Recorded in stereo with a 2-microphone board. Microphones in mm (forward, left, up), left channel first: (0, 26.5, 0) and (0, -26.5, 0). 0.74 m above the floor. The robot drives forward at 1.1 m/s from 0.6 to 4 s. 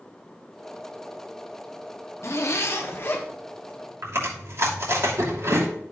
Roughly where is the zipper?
Left.